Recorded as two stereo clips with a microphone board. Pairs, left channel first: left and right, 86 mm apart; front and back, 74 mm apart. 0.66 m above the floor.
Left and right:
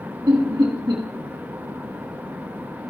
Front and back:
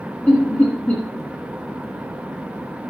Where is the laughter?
60° right, 1.4 m.